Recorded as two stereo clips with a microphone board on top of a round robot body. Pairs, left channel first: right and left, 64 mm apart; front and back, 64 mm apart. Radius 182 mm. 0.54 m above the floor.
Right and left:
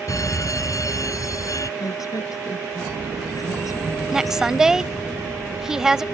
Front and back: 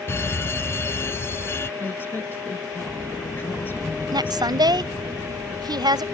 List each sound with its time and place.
0.1 s a fire alarm: 55° right
1.8 s a woman speaking: 60° right
4.1 s a woman speaking: 175° left